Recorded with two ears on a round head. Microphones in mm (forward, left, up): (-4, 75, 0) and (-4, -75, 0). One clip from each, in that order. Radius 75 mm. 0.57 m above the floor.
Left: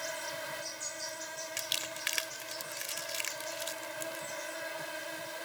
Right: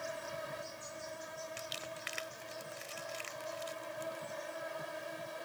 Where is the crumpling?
70° left (ahead or behind).